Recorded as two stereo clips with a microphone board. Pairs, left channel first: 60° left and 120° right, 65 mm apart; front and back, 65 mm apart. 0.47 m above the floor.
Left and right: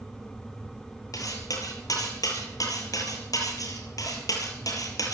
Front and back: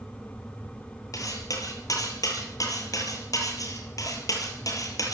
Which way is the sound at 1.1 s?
30° left.